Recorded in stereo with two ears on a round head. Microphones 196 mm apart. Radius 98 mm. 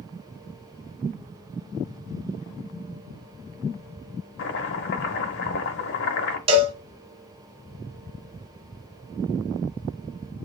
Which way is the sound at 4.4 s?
55° left (ahead or behind).